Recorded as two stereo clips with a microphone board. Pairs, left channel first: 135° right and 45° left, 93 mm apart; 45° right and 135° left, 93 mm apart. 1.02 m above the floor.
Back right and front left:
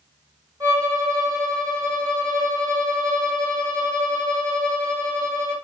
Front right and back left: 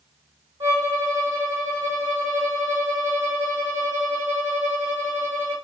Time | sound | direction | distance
0.6 | a violin | 100° left | 2 m